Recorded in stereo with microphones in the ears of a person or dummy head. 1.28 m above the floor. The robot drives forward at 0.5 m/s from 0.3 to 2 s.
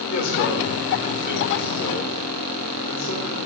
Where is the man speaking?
55° left (ahead or behind), 3.5 m; by 3.4 s 45° left (ahead or behind), 4 m.